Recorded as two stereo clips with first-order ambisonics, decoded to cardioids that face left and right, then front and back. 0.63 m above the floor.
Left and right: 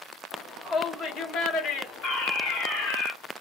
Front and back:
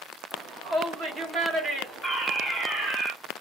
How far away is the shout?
About 0.9 m.